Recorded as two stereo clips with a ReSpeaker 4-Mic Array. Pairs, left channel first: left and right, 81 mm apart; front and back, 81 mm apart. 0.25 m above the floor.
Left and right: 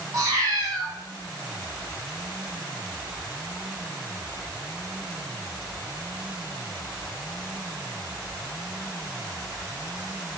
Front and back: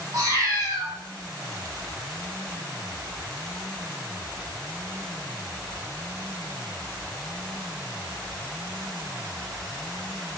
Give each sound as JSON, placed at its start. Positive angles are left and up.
{"t": 0.1, "sound": "a cat meowing", "azimuth_deg": -130, "distance_m": 1.7}